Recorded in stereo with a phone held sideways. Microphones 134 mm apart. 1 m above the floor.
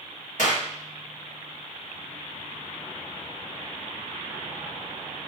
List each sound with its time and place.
0.4 s a clap: 65° left (ahead or behind), 1.0 m